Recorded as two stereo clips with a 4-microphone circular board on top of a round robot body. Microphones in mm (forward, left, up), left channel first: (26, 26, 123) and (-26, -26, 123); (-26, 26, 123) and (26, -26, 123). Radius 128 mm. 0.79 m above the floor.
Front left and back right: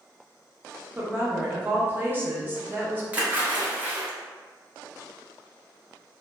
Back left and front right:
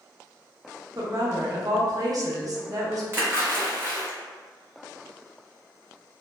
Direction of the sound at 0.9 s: 75° right.